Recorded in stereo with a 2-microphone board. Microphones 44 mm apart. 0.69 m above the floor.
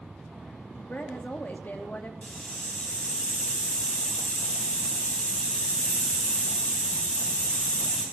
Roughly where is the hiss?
Left.